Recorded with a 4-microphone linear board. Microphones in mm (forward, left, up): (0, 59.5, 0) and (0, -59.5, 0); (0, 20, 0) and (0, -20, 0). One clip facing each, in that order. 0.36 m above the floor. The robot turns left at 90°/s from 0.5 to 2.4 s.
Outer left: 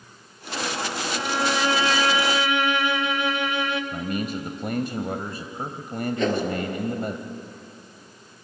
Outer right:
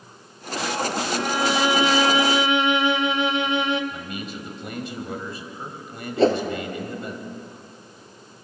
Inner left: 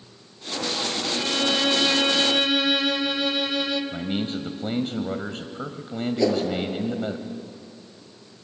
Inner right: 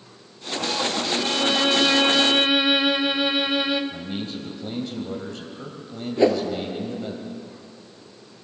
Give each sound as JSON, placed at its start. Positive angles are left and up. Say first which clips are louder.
{"t": 1.1, "sound": "a violin", "louder": "outer right 1 dB, inner right 1 dB", "side_deg": 5, "distance_m": 1.2}
{"t": 3.9, "sound": "a man speaking", "louder": "outer left 6 dB, inner left 3 dB", "side_deg": 50, "distance_m": 1.4}
{"t": 6.2, "sound": "a whoosh", "louder": "outer right 6 dB, inner right 4 dB", "side_deg": -35, "distance_m": 2.0}